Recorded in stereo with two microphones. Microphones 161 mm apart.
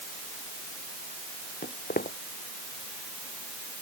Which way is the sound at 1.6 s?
65° left (ahead or behind).